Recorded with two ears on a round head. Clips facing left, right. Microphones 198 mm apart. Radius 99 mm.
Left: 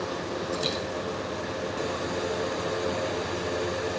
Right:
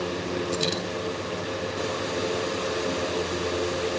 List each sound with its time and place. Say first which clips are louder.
0.5 s a dropped coin: right 2 dB; 50° right (ahead or behind), 8.5 m